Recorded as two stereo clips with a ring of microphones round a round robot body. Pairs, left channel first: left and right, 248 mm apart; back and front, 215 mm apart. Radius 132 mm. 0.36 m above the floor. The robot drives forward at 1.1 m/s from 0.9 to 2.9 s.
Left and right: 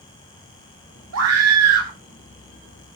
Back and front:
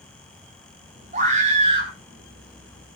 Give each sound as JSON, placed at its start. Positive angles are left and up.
{"t": 1.1, "sound": "a scream", "azimuth_deg": -60, "distance_m": 6.0}